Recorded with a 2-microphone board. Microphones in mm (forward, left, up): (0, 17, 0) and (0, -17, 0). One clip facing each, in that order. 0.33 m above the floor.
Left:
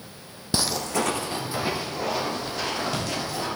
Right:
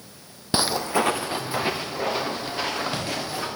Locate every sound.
0.5 s footsteps: 20° right (ahead or behind), 0.6 m